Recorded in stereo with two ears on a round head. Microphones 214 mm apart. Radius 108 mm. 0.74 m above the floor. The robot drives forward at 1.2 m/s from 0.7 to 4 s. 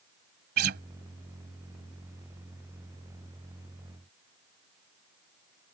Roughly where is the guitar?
Right.